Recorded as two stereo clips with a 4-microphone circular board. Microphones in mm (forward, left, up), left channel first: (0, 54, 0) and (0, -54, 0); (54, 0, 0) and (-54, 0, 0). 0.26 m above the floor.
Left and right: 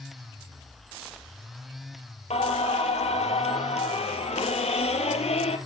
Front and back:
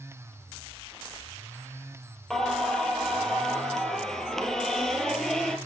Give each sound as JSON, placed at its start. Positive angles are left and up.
{"t": 2.3, "sound": "singing", "azimuth_deg": 85, "distance_m": 1.9}